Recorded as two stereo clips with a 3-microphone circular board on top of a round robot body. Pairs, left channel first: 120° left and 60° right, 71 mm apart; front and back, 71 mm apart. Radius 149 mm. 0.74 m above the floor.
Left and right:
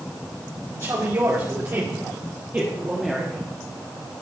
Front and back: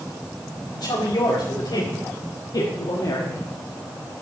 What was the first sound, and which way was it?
A woman speaking, 20° right.